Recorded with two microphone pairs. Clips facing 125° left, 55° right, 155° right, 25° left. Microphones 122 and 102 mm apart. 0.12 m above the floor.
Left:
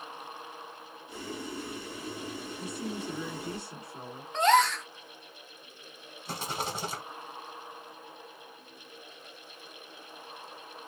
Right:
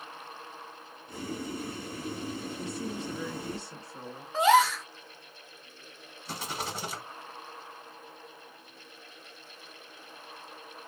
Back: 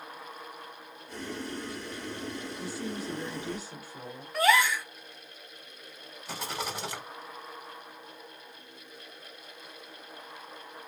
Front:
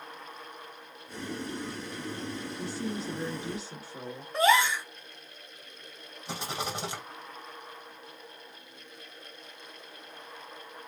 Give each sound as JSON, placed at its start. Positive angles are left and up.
{"t": 1.1, "sound": "boiling", "azimuth_deg": -55, "distance_m": 1.9}
{"t": 2.6, "sound": "a woman speaking", "azimuth_deg": 60, "distance_m": 1.4}
{"t": 4.3, "sound": "a gasp", "azimuth_deg": 30, "distance_m": 0.5}
{"t": 6.2, "sound": "a rattle", "azimuth_deg": 75, "distance_m": 2.0}